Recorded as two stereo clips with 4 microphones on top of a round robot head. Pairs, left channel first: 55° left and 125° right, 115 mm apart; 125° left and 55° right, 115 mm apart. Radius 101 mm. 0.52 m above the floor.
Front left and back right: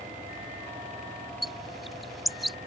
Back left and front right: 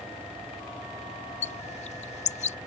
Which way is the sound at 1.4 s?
145° left.